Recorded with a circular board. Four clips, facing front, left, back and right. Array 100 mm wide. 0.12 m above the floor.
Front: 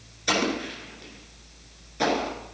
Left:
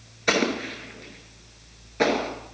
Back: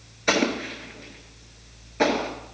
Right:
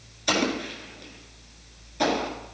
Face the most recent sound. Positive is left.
turn(degrees=125)